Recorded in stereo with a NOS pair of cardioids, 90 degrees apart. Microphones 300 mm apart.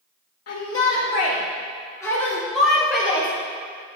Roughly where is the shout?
Ahead left.